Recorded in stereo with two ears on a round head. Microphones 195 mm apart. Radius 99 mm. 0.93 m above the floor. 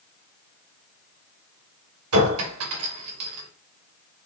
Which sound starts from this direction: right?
A clink, at 2.1 s.